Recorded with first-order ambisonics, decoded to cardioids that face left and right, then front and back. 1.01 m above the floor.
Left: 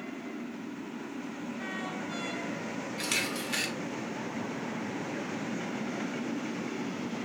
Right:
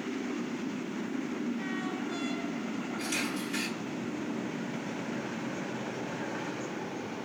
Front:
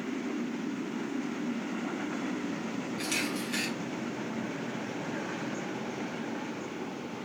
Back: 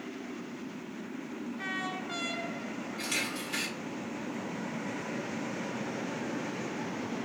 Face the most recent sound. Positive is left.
turn(degrees=85)